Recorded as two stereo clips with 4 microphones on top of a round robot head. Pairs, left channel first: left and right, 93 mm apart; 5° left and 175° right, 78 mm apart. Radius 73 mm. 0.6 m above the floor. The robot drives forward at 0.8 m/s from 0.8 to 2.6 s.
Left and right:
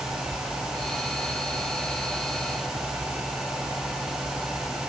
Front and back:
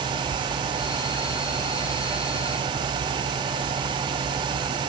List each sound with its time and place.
Only background noise.